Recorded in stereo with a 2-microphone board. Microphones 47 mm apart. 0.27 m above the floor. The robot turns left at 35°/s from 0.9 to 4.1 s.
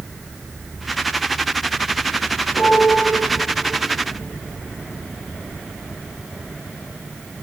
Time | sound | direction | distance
2.5 | a piano | 70° left (ahead or behind) | 6 m